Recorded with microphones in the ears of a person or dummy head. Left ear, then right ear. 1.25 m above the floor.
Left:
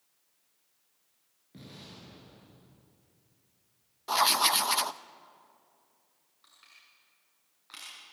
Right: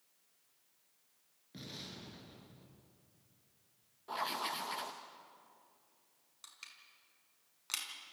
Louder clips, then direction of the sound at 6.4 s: Right 3 dB; 75° right (ahead or behind).